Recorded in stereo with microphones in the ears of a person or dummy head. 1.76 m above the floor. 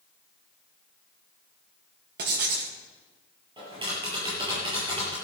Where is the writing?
60° right (ahead or behind), 2.5 m.